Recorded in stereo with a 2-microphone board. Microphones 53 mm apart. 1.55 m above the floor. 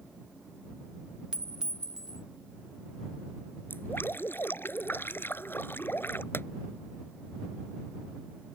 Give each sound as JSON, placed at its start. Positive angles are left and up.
{"t": 1.3, "sound": "a clink", "side_deg": -15}
{"t": 3.7, "sound": "dripping", "side_deg": 40}
{"t": 6.3, "sound": "a pop", "side_deg": 45}